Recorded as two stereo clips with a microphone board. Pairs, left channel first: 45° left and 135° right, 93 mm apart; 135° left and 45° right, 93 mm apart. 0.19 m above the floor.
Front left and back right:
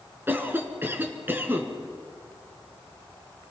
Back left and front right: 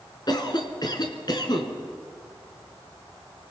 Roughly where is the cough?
Behind.